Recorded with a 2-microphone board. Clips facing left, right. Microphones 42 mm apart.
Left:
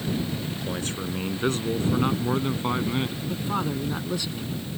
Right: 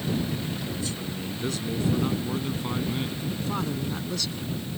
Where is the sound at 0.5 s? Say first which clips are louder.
Left 1 dB; 45° left (ahead or behind); by 3.2 s 30° left (ahead or behind).